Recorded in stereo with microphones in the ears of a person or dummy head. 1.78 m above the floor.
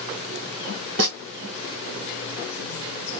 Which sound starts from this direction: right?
A snare drum, at 1.0 s.